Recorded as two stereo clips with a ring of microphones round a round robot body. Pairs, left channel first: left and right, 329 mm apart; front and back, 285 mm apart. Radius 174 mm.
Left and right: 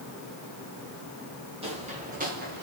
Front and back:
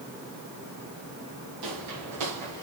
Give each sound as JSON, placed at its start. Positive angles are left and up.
{"t": 1.6, "sound": "footsteps", "azimuth_deg": -165, "distance_m": 5.0}